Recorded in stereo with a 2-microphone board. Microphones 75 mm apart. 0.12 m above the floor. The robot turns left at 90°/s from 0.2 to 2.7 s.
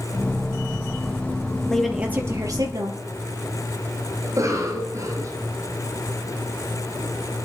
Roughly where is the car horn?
No car horn in this recording.